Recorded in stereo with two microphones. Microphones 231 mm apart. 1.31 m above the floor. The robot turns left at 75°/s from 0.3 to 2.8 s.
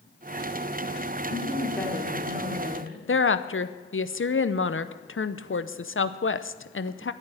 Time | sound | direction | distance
1.3 | a woman speaking | 45° left | 3 m
3.1 | a woman speaking | 60° left (ahead or behind) | 0.7 m